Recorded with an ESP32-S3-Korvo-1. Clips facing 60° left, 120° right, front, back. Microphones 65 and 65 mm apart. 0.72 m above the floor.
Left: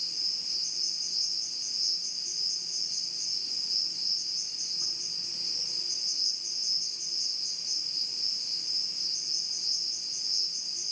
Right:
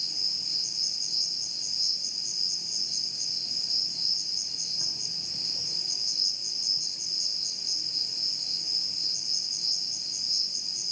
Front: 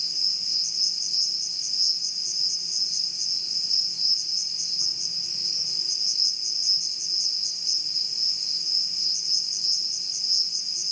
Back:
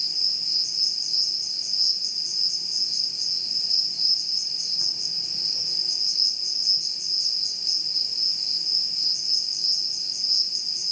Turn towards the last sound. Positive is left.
turn(degrees=-140)